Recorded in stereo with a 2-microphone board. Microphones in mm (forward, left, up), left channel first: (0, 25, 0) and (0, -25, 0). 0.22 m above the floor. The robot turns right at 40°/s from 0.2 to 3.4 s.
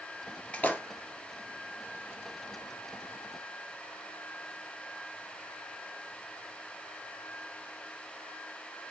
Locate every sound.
0.5 s a splash: 25° left (ahead or behind), 0.6 m; by 0.8 s 35° left (ahead or behind), 0.6 m